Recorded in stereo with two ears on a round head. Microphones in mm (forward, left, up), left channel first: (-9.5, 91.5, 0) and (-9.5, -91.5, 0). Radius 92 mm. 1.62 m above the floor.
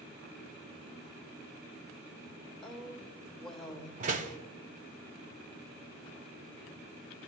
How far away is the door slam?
About 0.6 m.